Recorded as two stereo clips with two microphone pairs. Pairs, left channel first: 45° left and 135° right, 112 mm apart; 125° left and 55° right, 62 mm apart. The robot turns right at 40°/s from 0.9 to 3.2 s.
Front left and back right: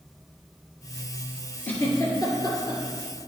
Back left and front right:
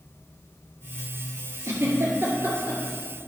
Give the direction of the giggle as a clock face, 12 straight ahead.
1 o'clock.